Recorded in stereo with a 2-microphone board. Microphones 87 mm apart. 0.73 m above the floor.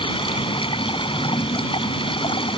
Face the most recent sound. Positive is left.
turn(degrees=85)